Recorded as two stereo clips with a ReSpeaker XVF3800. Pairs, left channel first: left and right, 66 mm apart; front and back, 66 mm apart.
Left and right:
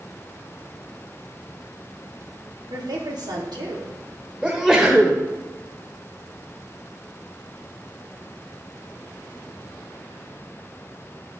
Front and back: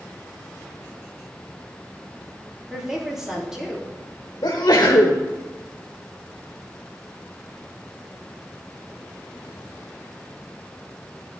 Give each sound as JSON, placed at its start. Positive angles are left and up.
{"t": 2.7, "sound": "a woman speaking", "azimuth_deg": -100, "distance_m": 2.5}
{"t": 4.4, "sound": "a sneeze", "azimuth_deg": -10, "distance_m": 1.4}